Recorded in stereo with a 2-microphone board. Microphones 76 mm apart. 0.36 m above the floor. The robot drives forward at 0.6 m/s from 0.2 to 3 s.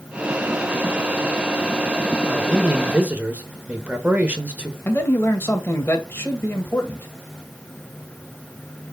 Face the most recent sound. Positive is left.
turn(degrees=30)  # may be behind; listen again after turning